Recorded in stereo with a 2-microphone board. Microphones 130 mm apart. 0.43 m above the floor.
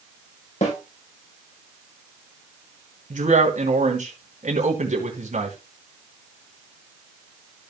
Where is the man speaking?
75° right (ahead or behind), 3 m.